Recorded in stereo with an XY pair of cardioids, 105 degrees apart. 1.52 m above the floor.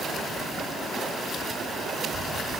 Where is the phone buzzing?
I don't hear a phone buzzing.